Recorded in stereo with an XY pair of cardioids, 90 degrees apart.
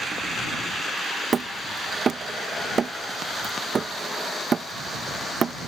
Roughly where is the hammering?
Ahead right.